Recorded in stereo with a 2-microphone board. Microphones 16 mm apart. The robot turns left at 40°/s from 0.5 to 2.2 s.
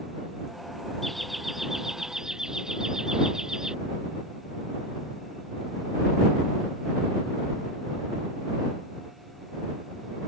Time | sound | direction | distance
1.0 | laughter | 15° left | ?